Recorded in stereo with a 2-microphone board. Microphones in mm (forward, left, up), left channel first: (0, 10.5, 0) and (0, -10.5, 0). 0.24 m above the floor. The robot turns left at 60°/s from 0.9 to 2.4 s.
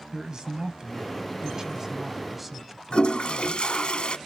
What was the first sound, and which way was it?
A man speaking, 75° right.